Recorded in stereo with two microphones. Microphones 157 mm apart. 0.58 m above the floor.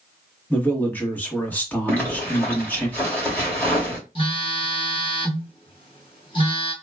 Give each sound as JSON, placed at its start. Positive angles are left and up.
{"t": 0.5, "sound": "a man speaking", "side_deg": 10, "distance_m": 1.0}
{"t": 1.9, "sound": "a zipper", "side_deg": 10, "distance_m": 1.7}
{"t": 4.2, "sound": "a phone buzzing", "side_deg": 35, "distance_m": 1.1}